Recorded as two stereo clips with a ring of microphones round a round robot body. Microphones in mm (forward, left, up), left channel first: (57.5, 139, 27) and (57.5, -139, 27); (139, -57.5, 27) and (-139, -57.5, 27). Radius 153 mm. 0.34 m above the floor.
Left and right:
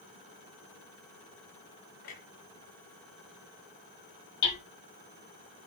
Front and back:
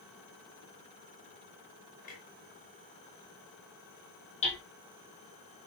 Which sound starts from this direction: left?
Hammering, at 4.4 s.